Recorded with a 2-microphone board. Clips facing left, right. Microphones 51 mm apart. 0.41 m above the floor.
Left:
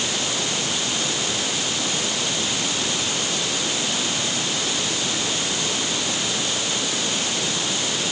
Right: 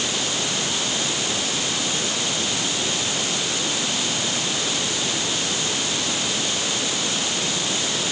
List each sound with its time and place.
Only background noise.